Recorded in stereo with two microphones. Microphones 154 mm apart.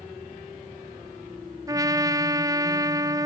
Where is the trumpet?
20° right (ahead or behind), 0.9 m.